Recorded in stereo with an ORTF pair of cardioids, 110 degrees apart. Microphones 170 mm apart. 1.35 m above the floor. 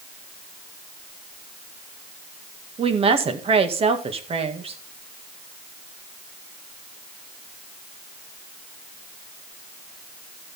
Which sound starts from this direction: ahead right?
A woman speaking, at 2.8 s.